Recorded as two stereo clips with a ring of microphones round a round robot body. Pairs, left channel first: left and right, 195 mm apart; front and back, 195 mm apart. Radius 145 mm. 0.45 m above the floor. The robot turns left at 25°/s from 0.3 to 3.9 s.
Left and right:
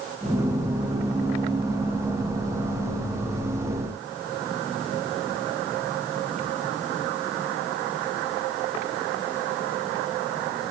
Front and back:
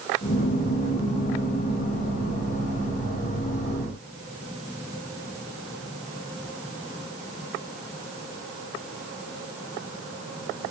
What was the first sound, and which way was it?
Only background noise.